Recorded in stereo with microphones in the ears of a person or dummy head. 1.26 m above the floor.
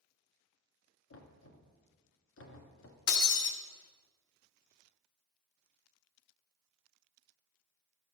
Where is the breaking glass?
60° left (ahead or behind), 1.1 m.